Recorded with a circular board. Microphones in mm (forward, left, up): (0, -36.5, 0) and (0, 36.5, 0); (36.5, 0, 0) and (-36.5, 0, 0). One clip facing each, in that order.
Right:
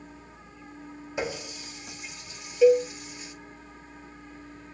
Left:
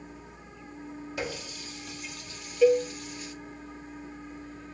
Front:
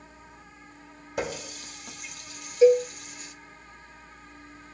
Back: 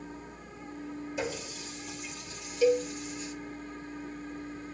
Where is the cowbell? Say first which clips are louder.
Right 3 dB, front 7 dB; 15° right, 0.5 m.